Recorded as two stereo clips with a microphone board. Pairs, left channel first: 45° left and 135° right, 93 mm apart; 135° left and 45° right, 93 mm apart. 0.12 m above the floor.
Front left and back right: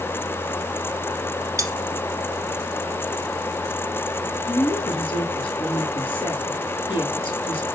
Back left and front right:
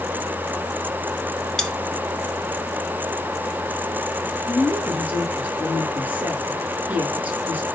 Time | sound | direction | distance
1.6 | cutlery clinking | 140° right | 1.0 m
4.5 | a woman speaking | 30° left | 4.5 m